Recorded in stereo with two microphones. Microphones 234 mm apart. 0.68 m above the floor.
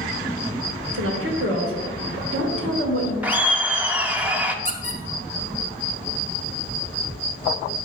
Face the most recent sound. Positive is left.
turn(degrees=-35)  # may be behind; listen again after turning